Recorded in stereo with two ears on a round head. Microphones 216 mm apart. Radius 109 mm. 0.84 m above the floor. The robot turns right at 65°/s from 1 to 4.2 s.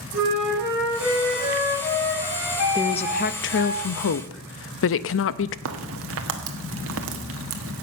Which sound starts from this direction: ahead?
A woman speaking, at 2.8 s.